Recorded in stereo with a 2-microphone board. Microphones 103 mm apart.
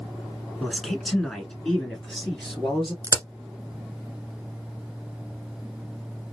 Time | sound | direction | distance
0.6 | a man speaking | 5° left (ahead or behind) | 1.3 m
3.0 | a crack | 30° right (ahead or behind) | 1.1 m